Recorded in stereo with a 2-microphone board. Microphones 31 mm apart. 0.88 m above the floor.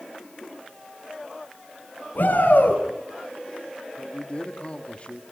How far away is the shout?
About 8 m.